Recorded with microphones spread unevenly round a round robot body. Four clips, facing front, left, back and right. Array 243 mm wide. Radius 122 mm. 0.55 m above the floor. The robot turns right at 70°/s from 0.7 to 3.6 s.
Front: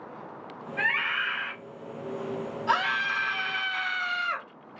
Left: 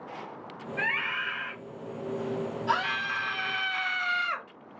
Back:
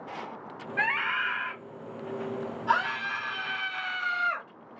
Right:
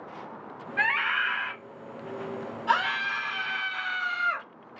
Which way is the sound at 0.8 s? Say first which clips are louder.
Right 5 dB, back 1 dB; 115° right.